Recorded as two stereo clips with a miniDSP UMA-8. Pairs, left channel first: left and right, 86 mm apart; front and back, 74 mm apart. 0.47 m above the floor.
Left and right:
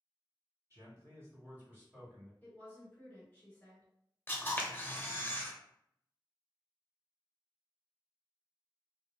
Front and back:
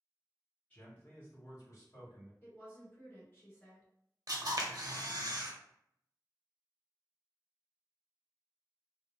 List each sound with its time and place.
0.7 s a man speaking: 65° right, 1.2 m; by 2.3 s 5° left, 1.4 m
2.4 s a woman speaking: 40° left, 1.4 m
4.3 s a camera shutter: 155° left, 0.6 m